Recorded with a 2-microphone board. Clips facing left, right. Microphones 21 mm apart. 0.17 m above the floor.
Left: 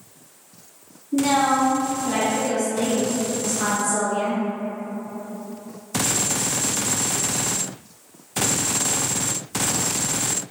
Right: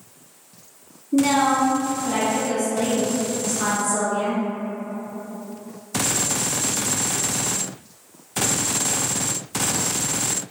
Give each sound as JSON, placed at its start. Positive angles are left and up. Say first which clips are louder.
{"t": 1.1, "sound": "a woman speaking", "louder": "right 1 dB", "side_deg": 5, "distance_m": 1.6}